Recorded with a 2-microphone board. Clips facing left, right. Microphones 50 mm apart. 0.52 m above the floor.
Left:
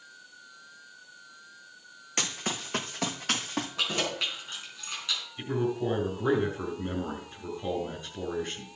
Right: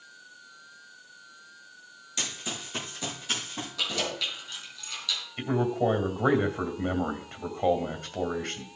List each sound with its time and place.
2.2 s running footsteps: 50° left (ahead or behind), 2.0 m; by 3.7 s 65° left (ahead or behind), 2.5 m
3.8 s keys jangling: 30° left (ahead or behind), 4.5 m
5.4 s a man speaking: 60° right (ahead or behind), 2.5 m